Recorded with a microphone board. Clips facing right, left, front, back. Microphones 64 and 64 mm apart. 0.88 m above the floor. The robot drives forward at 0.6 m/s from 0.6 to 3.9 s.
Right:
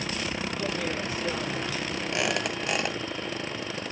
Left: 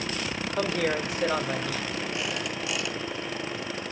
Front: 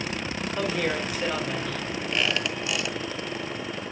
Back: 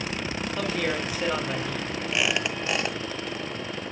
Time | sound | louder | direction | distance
0.6 | a woman speaking | left 7 dB, front 1 dB | 80° left | 1.6 m
2.1 | a squeak | right 3 dB, back 1 dB | 95° right | 0.6 m